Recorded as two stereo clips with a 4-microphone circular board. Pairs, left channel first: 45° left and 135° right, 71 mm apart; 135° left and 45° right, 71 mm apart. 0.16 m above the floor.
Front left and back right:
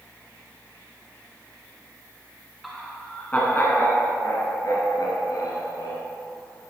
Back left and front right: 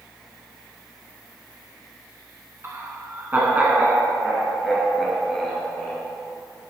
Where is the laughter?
45° right, 1.5 m; by 6.0 s 55° left, 3 m.